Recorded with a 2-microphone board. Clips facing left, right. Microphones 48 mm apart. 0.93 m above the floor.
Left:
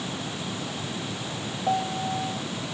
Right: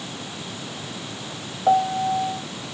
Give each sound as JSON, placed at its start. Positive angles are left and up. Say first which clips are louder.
{"t": 1.7, "sound": "a piano", "louder": "right 8 dB", "side_deg": -35}